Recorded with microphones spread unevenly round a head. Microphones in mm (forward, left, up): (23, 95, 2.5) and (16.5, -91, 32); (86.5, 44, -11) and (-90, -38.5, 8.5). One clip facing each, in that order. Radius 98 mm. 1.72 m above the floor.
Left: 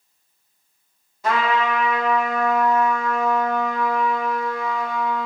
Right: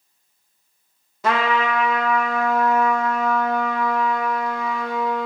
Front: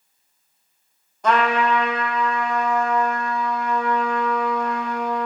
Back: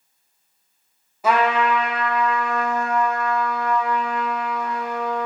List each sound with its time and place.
1.2 s a trumpet: 75° right, 1.0 m